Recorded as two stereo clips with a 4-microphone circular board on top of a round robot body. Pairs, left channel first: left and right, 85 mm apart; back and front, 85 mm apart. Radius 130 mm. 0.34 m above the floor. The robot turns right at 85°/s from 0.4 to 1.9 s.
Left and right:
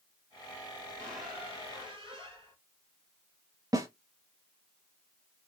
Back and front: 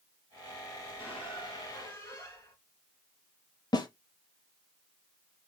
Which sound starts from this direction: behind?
A squeak, at 1.0 s.